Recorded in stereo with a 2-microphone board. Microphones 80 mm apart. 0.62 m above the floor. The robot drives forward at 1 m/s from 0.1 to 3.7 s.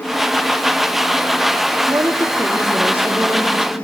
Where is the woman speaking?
40° right (ahead or behind), 0.9 m; by 3.7 s 15° right (ahead or behind), 2.5 m.